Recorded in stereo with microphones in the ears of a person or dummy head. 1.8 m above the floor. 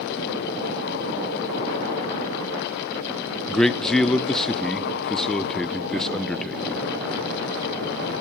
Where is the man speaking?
5° left (ahead or behind), 0.7 m.